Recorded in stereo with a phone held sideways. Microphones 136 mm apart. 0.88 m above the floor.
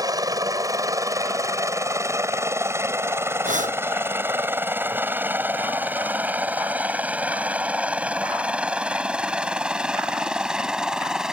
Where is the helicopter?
25° right (ahead or behind); by 11.3 s 5° right (ahead or behind).